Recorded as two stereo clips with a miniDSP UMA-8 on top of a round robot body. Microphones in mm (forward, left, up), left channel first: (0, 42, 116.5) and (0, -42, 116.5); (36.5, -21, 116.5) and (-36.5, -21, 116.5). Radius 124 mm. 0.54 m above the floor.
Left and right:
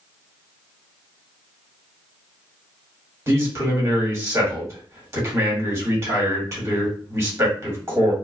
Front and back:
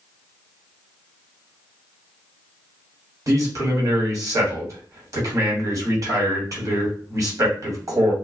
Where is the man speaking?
140° right, 1.7 m.